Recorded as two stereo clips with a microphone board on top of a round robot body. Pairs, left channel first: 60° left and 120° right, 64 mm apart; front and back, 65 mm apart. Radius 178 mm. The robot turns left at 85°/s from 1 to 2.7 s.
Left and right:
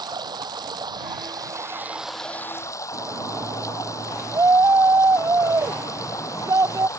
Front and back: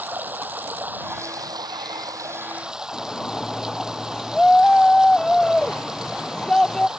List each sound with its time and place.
0.0 s running water: 115° right; by 7.0 s 100° left
2.9 s a shout: 80° right